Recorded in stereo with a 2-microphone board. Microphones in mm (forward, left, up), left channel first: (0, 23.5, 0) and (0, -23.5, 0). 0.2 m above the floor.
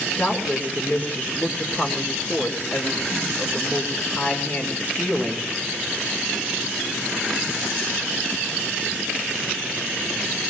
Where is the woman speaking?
35° left (ahead or behind), 4 m.